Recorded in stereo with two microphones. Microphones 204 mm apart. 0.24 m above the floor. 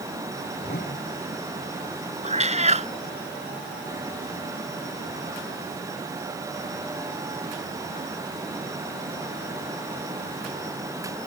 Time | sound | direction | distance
0.6 | a whoosh | 50° left (ahead or behind) | ?
2.2 | a cat meowing | 35° right (ahead or behind) | ?